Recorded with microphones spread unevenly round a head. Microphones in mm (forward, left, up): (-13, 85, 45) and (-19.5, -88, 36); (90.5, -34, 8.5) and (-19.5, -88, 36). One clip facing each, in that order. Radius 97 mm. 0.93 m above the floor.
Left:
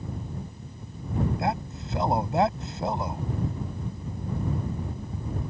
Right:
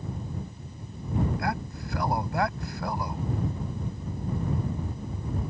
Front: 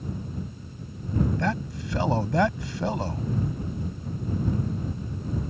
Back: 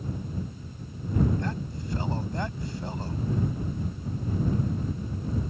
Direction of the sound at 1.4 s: 20° left.